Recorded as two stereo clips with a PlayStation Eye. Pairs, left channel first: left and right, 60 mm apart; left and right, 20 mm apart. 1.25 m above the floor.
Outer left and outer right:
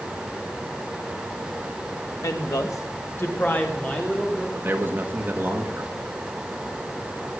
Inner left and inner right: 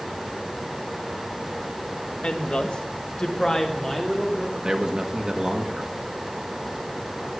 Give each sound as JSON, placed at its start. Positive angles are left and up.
{"t": 2.2, "sound": "a woman speaking", "side_deg": 75, "distance_m": 1.3}
{"t": 4.5, "sound": "a man speaking", "side_deg": -40, "distance_m": 1.5}